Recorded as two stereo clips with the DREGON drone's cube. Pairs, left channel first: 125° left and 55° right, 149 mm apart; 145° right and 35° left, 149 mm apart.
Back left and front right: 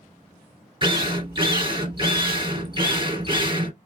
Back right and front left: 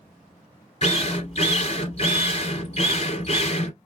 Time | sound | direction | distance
0.8 | a drill | 110° right | 2.5 m